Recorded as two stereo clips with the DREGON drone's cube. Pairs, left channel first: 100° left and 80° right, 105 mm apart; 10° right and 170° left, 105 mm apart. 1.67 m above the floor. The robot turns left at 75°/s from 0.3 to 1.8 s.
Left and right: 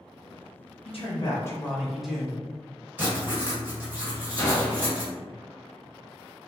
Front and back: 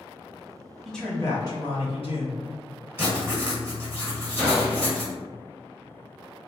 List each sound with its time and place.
0.8 s a man speaking: 80° left, 1.0 m; by 2.4 s 10° left, 1.0 m
3.0 s writing: 135° right, 1.7 m
4.4 s a gunshot: 35° left, 1.7 m